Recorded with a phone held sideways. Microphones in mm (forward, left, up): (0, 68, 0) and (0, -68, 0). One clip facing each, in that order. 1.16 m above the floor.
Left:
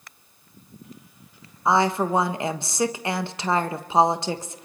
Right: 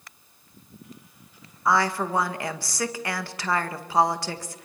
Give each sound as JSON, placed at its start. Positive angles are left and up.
{"t": 1.6, "sound": "a woman speaking", "side_deg": 20, "distance_m": 1.2}